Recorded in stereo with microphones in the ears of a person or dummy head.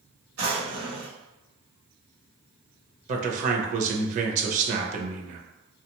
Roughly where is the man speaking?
Right.